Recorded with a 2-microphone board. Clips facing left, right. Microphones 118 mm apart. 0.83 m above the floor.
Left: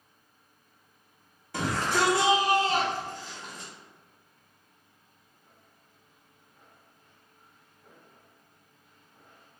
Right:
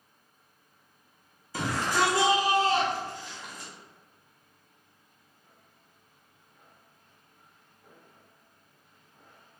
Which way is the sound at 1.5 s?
65° left (ahead or behind).